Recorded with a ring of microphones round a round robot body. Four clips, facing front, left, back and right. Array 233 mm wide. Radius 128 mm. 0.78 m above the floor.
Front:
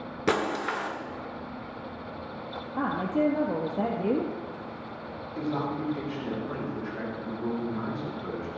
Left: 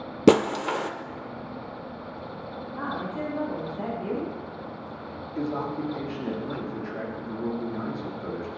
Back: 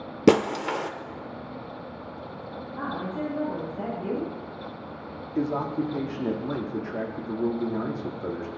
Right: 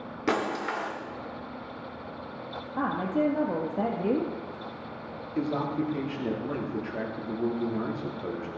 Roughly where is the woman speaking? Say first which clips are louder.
Right 5 dB, front 5 dB; ahead right.